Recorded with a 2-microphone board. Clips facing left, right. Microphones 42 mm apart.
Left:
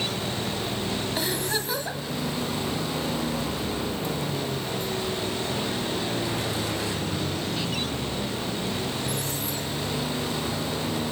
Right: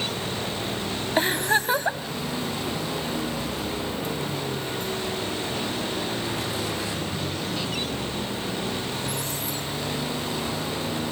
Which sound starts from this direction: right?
A giggle, at 1.2 s.